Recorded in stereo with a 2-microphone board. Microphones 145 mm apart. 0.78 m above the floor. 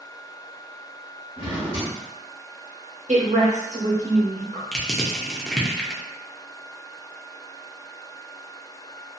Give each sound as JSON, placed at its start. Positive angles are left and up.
{"t": 1.4, "sound": "a drawer", "side_deg": -35, "distance_m": 1.1}
{"t": 3.1, "sound": "a woman speaking", "side_deg": -55, "distance_m": 0.9}
{"t": 4.7, "sound": "crushing", "side_deg": 0, "distance_m": 0.6}